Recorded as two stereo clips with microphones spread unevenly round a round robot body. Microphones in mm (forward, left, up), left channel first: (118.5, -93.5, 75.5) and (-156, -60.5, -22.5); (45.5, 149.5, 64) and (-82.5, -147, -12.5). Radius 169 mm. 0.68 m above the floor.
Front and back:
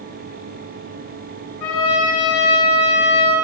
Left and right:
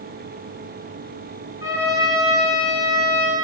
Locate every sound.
1.6 s a trumpet: 10° right, 5.5 m